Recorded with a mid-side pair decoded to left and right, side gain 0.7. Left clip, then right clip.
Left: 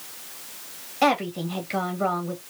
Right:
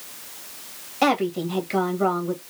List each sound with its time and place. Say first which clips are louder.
1.0 s a woman speaking: right 1 dB; 10° right, 1.5 m